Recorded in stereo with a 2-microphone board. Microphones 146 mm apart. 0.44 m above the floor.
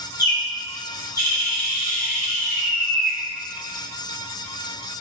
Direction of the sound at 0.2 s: 25° left (ahead or behind).